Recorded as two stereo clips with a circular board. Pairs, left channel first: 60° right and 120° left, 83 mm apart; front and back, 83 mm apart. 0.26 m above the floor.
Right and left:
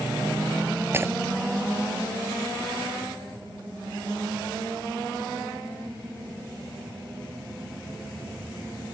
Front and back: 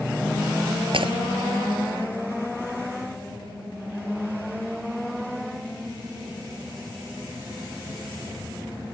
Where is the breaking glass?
Straight behind.